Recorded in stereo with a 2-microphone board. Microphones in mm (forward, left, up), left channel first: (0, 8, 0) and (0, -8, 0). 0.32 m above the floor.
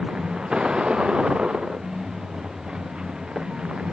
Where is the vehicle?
80° right; by 3.9 s 85° right.